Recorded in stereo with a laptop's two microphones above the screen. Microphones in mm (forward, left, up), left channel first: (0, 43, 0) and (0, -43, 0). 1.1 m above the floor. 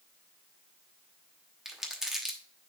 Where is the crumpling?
5° right (ahead or behind), 1.1 m.